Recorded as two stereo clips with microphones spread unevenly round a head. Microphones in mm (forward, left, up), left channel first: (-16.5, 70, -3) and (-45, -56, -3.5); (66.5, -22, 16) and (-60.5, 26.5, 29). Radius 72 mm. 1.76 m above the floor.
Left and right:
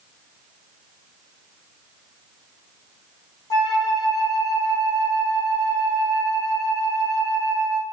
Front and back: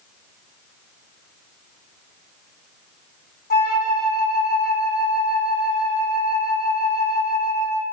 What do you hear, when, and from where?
3.5 s a flute: 10° left, 0.6 m